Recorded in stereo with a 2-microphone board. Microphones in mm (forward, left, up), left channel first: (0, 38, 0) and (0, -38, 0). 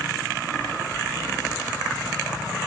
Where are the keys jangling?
45° right (ahead or behind), 2 m.